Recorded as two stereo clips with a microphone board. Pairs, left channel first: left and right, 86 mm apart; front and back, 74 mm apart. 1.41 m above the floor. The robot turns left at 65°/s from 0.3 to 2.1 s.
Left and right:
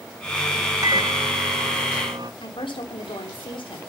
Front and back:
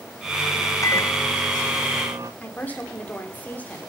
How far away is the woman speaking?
About 3.5 m.